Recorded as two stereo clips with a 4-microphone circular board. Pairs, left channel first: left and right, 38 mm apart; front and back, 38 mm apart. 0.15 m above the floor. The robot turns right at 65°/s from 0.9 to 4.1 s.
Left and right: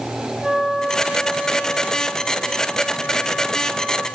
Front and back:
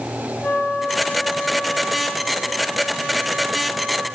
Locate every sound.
0.4 s a flute: 25° right, 1.4 m; by 4.1 s straight behind, 1.4 m